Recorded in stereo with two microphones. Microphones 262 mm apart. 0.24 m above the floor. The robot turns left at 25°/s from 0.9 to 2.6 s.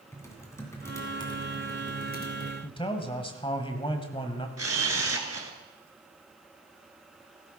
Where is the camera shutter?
70° right (ahead or behind), 1.5 m.